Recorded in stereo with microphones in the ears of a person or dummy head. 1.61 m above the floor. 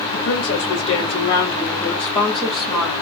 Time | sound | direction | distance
0.1 | a woman speaking | 55° left (ahead or behind) | 0.9 m